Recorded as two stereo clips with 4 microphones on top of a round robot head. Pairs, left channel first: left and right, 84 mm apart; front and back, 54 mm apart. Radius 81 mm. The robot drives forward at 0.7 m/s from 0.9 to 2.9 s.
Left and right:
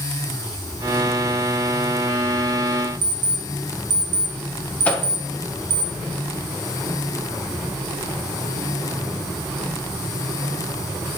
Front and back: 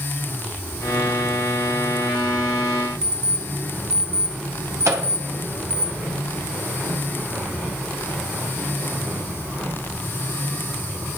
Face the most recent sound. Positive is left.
turn(degrees=165)